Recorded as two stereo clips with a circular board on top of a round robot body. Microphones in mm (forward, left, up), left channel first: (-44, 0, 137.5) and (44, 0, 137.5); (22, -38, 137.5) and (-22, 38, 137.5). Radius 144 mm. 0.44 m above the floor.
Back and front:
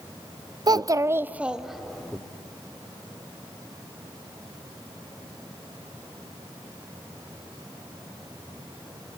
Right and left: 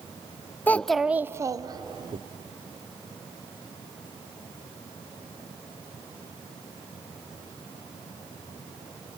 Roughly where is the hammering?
I don't hear hammering.